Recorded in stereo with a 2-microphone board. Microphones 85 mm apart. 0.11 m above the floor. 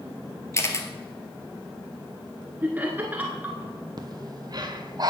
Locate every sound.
0.5 s a camera shutter: 30° left (ahead or behind), 1.2 m
2.6 s laughter: 20° right (ahead or behind), 1.3 m
4.0 s breathing: 45° right (ahead or behind), 1.0 m